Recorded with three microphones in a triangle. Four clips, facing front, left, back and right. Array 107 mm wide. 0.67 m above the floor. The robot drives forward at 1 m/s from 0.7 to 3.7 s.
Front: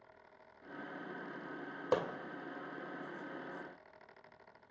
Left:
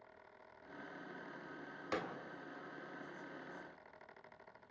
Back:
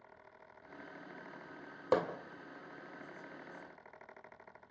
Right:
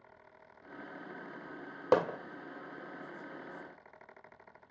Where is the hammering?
95° right, 1.1 m; by 2.2 s 110° right, 1.1 m.